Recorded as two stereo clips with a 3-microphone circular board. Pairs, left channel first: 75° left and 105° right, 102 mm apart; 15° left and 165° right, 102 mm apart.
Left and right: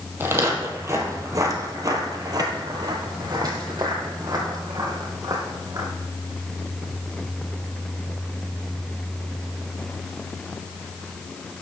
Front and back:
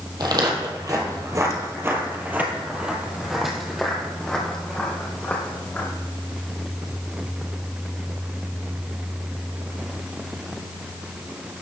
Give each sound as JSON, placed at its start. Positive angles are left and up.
{"t": 0.2, "sound": "footsteps", "azimuth_deg": -160, "distance_m": 1.7}